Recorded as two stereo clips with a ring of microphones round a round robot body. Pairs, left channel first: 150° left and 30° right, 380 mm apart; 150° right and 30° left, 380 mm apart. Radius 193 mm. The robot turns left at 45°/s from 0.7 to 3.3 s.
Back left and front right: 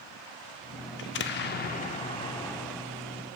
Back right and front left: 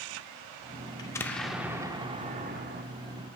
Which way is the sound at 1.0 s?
140° left.